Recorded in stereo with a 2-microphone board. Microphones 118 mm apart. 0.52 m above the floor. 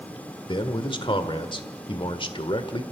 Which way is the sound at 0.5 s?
50° left (ahead or behind).